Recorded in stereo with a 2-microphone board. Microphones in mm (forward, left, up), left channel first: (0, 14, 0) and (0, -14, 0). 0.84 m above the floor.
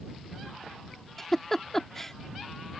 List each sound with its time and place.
1.2 s a giggle: 10° left (ahead or behind)